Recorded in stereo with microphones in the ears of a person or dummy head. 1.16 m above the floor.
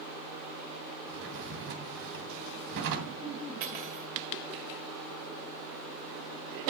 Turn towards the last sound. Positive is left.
turn(degrees=-45)  # may be behind; listen again after turning